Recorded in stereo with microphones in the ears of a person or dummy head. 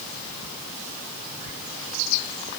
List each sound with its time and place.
Only background noise.